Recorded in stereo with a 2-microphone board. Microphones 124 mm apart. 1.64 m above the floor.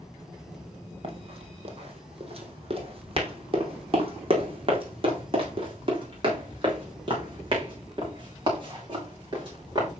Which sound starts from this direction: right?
Running footsteps, at 1.0 s.